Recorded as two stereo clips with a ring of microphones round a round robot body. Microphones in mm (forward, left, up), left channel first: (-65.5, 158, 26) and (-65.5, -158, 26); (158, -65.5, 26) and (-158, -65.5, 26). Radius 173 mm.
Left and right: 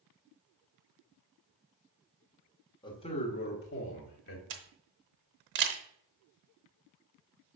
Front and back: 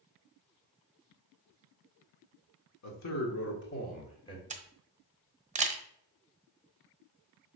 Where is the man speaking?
15° left, 1.7 m; by 4.4 s 75° left, 1.5 m.